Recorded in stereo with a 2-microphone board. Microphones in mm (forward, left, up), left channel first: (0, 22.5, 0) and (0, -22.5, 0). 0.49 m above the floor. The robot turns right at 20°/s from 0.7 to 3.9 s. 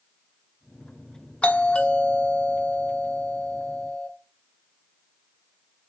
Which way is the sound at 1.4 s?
25° left (ahead or behind).